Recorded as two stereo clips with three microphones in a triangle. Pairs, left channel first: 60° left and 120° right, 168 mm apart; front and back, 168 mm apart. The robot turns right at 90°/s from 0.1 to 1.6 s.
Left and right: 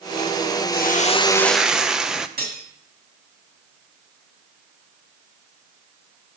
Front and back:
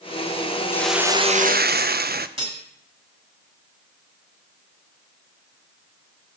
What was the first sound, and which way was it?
A hiss, 75° left.